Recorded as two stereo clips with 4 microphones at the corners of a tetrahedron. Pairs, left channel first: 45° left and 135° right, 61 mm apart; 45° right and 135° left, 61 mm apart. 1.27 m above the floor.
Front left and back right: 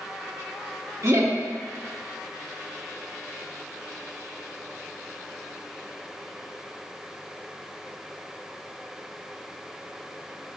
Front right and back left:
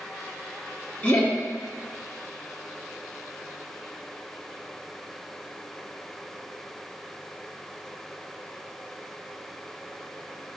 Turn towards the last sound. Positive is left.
turn(degrees=-100)